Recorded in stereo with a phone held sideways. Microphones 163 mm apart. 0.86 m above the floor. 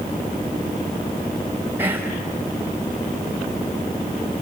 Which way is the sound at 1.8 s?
15° right (ahead or behind).